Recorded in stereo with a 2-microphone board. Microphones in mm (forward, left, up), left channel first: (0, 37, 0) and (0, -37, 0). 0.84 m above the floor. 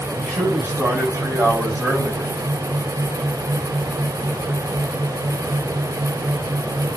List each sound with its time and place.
0.2 s a man speaking: 35° right (ahead or behind), 5.5 m; by 2.3 s 30° right (ahead or behind), 4.5 m